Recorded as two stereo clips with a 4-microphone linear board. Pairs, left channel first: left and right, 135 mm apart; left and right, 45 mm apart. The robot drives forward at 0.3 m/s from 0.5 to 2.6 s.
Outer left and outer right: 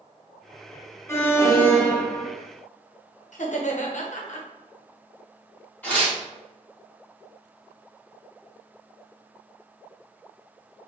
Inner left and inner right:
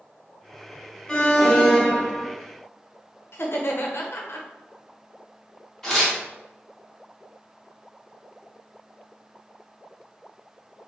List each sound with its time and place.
1.1 s an alarm: 20° left (ahead or behind), 0.6 m; by 2.3 s 15° left (ahead or behind), 0.8 m
3.3 s laughter: 65° left (ahead or behind), 0.7 m
5.8 s tearing paper: 10° left (ahead or behind), 1.1 m